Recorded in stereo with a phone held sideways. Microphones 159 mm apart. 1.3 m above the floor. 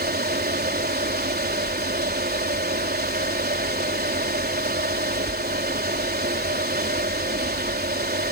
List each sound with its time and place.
0.0 s a fan: 80° right